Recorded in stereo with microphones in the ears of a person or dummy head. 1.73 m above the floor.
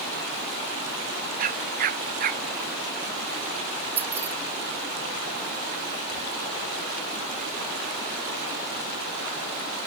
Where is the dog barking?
45° right (ahead or behind).